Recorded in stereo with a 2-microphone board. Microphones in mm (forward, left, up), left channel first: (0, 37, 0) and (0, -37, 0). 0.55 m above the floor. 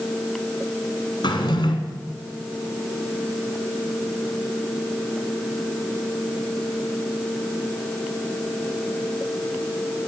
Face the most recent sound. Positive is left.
turn(degrees=80)